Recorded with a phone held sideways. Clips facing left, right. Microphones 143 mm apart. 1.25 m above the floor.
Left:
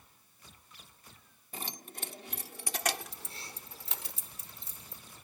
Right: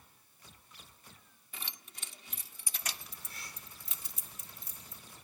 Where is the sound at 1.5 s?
40° left (ahead or behind); by 4.1 s 90° left.